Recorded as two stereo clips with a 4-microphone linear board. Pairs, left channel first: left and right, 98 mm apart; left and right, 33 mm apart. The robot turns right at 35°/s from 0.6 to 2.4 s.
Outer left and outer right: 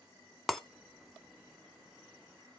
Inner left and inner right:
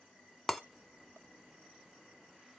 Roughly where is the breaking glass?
Centre.